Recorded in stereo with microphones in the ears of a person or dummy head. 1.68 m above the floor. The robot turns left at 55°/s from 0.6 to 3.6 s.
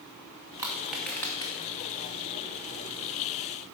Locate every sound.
0.6 s crushing: 15° right (ahead or behind), 0.8 m; by 1.5 s 20° left (ahead or behind), 0.8 m